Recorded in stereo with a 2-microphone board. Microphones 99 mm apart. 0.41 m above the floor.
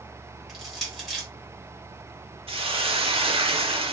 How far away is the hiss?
About 0.7 m.